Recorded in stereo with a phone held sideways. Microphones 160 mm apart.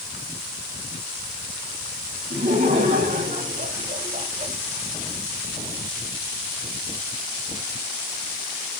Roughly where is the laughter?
Right.